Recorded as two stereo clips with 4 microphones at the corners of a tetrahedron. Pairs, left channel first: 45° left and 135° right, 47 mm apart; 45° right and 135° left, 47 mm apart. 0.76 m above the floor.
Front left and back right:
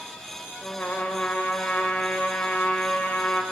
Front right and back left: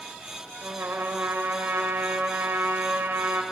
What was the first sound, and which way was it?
A trumpet, 105° left.